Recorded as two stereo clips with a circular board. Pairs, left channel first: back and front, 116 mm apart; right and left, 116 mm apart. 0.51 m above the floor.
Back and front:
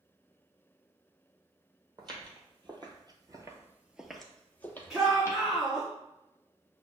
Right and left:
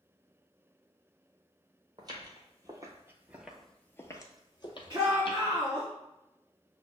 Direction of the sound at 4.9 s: 65° left.